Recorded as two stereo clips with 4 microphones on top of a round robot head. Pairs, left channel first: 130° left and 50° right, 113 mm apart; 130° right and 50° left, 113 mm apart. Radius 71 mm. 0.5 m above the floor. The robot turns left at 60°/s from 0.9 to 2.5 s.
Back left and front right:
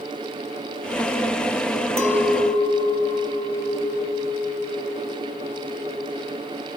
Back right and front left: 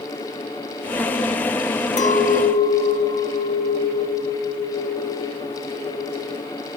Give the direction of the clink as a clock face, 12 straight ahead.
4 o'clock.